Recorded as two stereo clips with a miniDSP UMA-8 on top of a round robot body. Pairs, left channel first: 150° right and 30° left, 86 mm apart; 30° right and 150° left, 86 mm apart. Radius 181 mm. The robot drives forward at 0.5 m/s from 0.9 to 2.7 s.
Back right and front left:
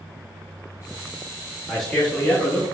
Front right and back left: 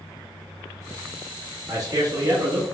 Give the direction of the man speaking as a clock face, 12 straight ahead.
8 o'clock.